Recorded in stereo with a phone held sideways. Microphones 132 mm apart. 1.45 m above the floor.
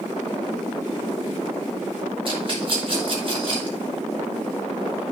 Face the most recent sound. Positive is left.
turn(degrees=-40)  # may be behind; listen again after turning